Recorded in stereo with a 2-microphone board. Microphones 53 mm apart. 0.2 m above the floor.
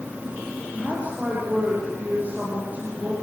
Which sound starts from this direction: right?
A woman speaking, at 0.7 s.